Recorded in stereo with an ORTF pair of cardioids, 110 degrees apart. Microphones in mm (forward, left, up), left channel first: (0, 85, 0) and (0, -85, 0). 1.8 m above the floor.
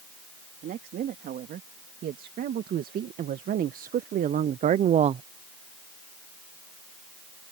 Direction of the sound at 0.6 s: 60° right.